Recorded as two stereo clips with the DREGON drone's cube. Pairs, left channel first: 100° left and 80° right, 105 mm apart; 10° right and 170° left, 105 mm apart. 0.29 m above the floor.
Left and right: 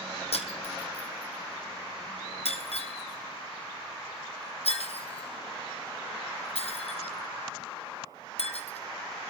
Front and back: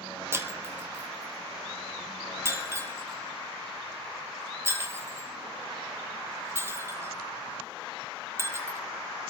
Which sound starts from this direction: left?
Breaking glass, at 0.3 s.